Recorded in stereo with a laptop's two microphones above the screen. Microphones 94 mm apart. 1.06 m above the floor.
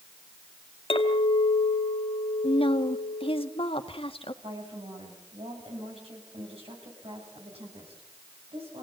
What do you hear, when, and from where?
0.9 s a clink: 80° left, 2 m
2.4 s a woman speaking: 75° left (ahead or behind), 1.6 m
4.4 s a woman speaking: 85° right, 8.5 m